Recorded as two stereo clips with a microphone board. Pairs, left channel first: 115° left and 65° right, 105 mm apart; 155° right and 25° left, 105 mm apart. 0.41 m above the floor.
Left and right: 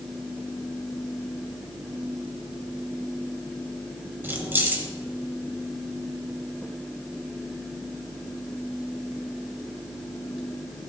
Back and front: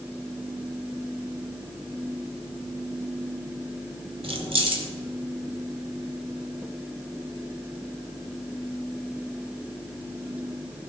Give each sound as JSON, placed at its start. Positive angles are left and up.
{"t": 4.2, "sound": "keys jangling", "azimuth_deg": 0, "distance_m": 1.3}